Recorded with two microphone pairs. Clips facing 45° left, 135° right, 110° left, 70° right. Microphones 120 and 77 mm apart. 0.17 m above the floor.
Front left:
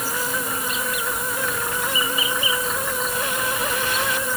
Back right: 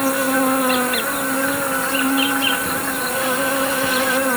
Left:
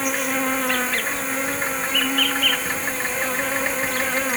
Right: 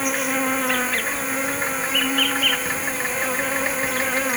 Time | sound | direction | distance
0.0 | an insect | 155° right | ?